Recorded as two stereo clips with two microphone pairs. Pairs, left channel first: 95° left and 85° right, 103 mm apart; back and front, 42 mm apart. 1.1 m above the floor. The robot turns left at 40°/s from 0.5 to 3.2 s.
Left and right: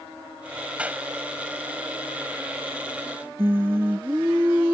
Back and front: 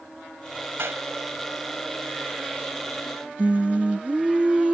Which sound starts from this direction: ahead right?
Singing, at 3.4 s.